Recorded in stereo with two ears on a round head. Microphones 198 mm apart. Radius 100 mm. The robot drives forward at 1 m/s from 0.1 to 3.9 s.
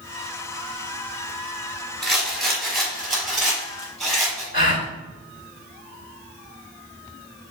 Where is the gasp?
40° left (ahead or behind), 2 m.